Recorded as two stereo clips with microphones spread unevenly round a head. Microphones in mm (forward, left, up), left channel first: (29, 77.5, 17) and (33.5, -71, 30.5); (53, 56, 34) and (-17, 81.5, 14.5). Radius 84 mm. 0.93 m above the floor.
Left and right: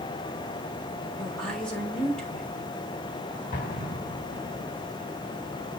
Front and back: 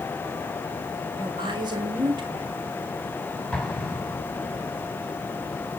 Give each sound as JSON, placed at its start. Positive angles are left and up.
{"t": 1.2, "sound": "a woman speaking", "azimuth_deg": 175, "distance_m": 3.5}
{"t": 3.5, "sound": "an explosion", "azimuth_deg": 65, "distance_m": 4.0}